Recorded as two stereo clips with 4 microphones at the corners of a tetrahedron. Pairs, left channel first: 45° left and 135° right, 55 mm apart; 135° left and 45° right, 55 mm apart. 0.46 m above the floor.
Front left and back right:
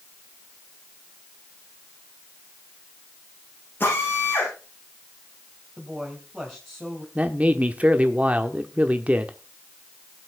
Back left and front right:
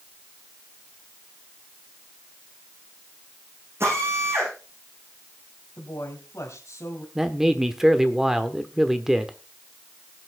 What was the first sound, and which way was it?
A drill, 5° right.